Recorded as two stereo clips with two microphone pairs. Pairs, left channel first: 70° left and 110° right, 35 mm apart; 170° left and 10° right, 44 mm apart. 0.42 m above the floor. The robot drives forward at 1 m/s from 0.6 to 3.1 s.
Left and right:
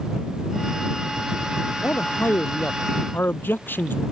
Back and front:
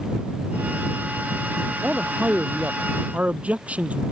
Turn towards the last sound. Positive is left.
turn(degrees=50)